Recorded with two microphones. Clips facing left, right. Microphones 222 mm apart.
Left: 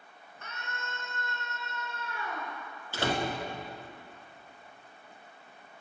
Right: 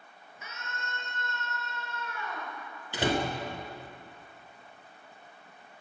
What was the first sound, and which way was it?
A scream, 10° right (ahead or behind).